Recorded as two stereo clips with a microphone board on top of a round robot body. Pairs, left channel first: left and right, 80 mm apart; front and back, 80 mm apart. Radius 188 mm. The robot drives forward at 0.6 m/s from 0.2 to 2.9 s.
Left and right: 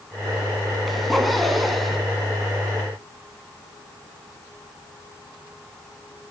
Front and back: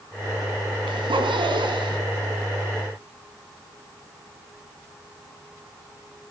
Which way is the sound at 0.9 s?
Straight behind.